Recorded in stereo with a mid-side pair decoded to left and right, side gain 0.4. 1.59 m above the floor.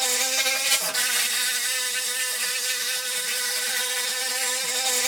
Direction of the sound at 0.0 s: 15° right.